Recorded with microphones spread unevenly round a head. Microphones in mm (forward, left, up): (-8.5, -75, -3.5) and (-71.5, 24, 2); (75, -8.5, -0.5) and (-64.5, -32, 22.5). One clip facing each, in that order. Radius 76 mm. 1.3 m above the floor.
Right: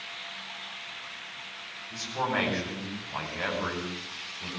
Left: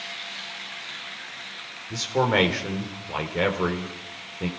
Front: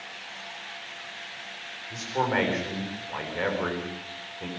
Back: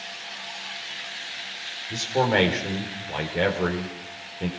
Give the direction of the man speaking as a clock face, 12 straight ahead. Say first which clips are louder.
Left 8 dB, back 5 dB; 8 o'clock.